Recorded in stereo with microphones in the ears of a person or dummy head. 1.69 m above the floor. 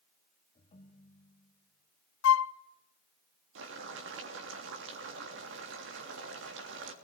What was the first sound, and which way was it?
A ringtone, 35° left (ahead or behind).